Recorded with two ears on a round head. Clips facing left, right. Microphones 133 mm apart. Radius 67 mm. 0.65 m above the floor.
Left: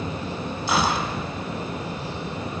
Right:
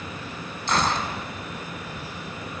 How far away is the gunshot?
About 0.9 m.